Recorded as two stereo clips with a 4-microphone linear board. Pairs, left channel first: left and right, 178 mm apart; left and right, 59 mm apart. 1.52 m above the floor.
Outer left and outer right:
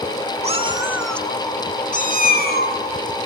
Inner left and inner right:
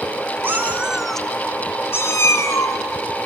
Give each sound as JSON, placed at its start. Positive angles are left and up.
{"t": 0.4, "sound": "a cat meowing", "side_deg": -35, "distance_m": 1.4}